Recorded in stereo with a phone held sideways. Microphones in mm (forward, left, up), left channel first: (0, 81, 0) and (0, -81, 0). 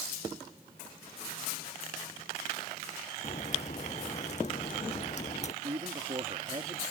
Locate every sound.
3.2 s a crack: 45° left (ahead or behind)
5.6 s a man speaking: 40° right (ahead or behind)